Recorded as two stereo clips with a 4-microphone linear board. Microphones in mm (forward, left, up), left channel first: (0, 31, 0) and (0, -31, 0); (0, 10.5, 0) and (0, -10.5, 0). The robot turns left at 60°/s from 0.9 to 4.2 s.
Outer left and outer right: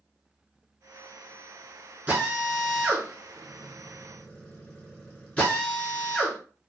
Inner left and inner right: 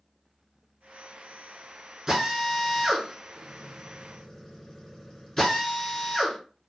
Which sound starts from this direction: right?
A drill, at 2.1 s.